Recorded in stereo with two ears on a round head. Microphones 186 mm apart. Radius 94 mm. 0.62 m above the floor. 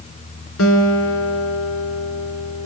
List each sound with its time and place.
0.6 s a guitar: 65° left (ahead or behind), 4 m